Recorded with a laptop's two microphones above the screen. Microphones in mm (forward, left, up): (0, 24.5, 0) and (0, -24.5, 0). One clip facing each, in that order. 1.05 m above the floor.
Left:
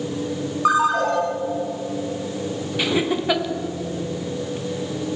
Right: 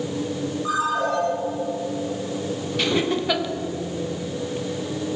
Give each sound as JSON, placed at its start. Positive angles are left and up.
{"t": 0.7, "sound": "a ringtone", "side_deg": 80, "distance_m": 4.5}
{"t": 2.8, "sound": "laughter", "side_deg": 10, "distance_m": 1.1}